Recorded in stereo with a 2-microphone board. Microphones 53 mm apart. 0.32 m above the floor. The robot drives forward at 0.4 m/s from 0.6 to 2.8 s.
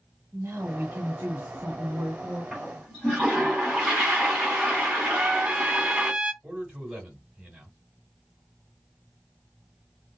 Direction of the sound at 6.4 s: 15° right (ahead or behind).